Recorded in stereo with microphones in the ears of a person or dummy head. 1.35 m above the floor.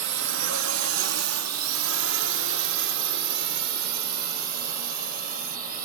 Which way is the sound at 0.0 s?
60° right (ahead or behind).